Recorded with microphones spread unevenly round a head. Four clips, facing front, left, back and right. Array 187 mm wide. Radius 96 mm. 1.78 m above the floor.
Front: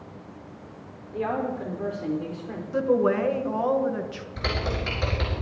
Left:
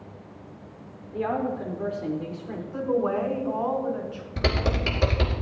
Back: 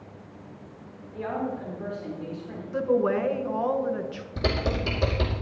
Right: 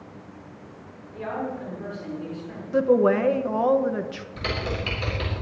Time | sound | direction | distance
1.1 | a woman speaking | 35° left | 5 m
2.7 | a woman speaking | 85° right | 1.4 m
4.4 | typing on a keyboard | 130° left | 2.5 m